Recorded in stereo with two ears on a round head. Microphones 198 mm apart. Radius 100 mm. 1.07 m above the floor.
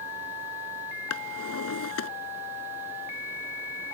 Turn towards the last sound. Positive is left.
turn(degrees=75)  # may be behind; listen again after turning